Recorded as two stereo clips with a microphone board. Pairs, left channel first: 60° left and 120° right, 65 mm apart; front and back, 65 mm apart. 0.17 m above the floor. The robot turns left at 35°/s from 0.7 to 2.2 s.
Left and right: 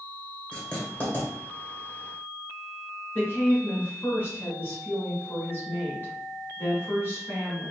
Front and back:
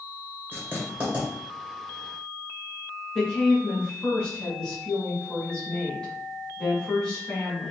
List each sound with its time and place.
0.5 s writing: 130° left, 1.7 m; by 1.3 s 110° left, 1.7 m
3.1 s a woman speaking: 65° left, 1.7 m